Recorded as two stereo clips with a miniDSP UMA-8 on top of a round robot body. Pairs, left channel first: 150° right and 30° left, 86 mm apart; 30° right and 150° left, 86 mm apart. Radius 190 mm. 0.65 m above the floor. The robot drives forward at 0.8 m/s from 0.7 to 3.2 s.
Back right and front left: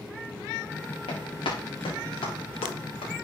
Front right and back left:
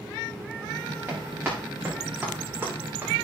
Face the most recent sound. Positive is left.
turn(degrees=-150)